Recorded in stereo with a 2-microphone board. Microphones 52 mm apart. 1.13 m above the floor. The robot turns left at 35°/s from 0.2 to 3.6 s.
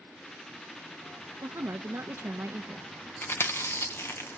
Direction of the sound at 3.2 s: 45° left (ahead or behind).